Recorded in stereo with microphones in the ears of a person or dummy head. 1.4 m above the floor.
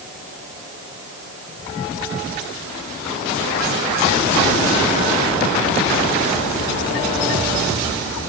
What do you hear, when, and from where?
Only background noise.